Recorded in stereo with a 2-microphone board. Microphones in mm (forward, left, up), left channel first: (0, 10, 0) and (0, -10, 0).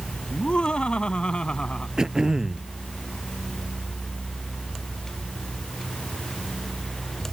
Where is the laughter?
60° left (ahead or behind); by 1.9 s 55° left (ahead or behind).